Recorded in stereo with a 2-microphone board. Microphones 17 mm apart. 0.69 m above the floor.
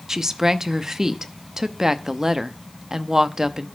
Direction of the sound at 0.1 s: 30° right (ahead or behind).